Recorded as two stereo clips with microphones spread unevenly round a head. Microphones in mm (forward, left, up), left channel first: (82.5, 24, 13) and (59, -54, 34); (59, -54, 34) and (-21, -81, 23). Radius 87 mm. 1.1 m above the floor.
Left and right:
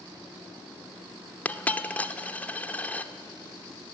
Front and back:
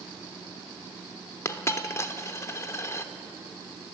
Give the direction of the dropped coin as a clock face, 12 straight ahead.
12 o'clock.